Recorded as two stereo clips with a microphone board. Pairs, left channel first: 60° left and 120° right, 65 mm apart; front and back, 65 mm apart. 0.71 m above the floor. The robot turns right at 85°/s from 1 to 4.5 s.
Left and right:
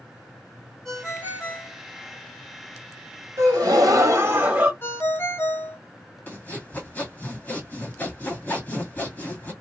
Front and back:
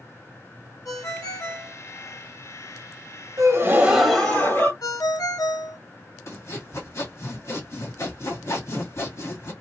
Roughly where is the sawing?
Ahead.